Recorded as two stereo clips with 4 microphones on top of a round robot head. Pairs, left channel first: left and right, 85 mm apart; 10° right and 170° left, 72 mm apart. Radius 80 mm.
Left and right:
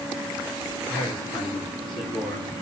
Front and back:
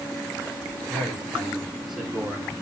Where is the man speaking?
75° left, 3 m; by 2.5 s 95° left, 2.5 m.